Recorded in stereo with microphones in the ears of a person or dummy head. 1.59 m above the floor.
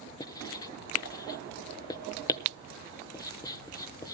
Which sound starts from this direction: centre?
Writing, at 0.2 s.